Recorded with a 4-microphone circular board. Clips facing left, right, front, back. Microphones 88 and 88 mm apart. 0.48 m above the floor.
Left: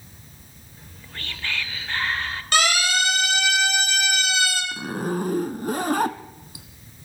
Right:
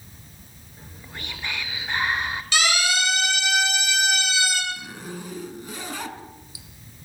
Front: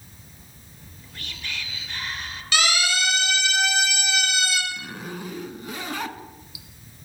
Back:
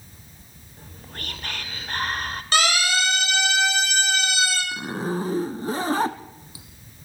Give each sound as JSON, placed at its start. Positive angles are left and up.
{"t": 0.8, "sound": "whispering", "azimuth_deg": -160, "distance_m": 1.9}
{"t": 2.5, "sound": "a siren", "azimuth_deg": 130, "distance_m": 9.5}
{"t": 4.7, "sound": "a zipper", "azimuth_deg": 130, "distance_m": 0.9}